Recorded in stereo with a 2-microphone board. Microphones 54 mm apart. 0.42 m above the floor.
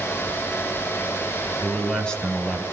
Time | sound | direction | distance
1.6 | a man speaking | 20° left (ahead or behind) | 4 m